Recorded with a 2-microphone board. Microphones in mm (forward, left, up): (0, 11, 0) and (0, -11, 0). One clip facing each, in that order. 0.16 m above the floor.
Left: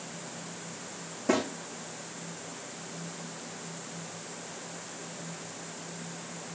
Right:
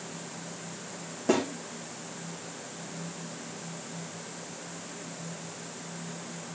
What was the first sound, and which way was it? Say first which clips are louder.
A snare drum: right 1 dB; 15° right (ahead or behind).